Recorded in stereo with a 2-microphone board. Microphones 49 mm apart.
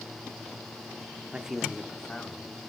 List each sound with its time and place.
1.3 s a man speaking: 20° right (ahead or behind), 1.3 m; by 2.5 s 35° left (ahead or behind), 1.7 m